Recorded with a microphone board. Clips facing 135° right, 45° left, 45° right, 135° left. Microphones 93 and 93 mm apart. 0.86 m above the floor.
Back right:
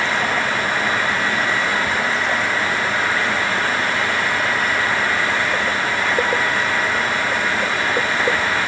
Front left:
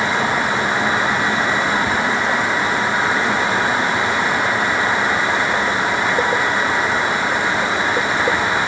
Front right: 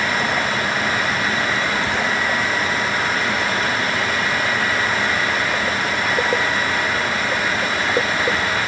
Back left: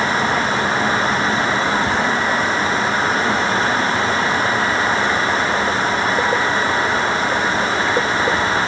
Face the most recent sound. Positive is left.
No sound to turn to.